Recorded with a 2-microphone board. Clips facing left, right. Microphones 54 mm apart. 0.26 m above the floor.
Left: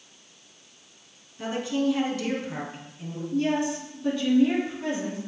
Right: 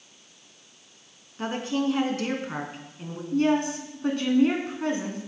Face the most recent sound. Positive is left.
turn(degrees=-55)  # may be behind; listen again after turning